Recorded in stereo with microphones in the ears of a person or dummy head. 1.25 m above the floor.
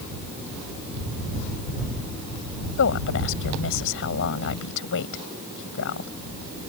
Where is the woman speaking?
70° left (ahead or behind).